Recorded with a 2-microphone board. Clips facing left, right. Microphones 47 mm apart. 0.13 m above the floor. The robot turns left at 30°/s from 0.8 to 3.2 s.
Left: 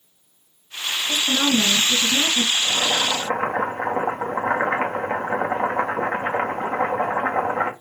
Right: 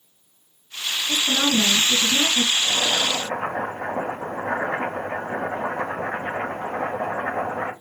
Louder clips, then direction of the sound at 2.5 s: Left 1 dB; 30° left (ahead or behind).